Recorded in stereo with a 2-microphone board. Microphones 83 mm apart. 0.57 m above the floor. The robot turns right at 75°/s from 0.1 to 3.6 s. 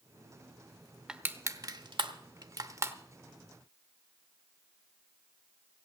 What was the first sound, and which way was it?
Crushing, 10° right (ahead or behind).